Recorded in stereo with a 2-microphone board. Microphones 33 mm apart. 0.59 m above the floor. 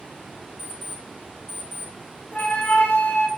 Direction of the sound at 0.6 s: 70° right (ahead or behind).